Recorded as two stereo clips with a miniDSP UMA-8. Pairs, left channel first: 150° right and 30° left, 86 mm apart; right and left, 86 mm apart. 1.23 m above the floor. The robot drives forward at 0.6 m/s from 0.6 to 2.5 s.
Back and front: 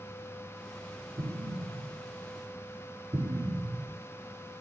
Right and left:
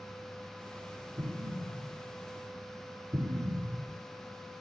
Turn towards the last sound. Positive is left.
turn(degrees=45)